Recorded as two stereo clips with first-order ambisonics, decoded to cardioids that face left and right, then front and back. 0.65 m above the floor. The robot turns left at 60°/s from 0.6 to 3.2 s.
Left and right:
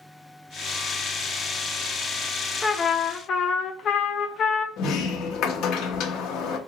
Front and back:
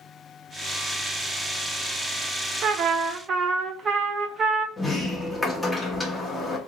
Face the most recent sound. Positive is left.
turn(degrees=90)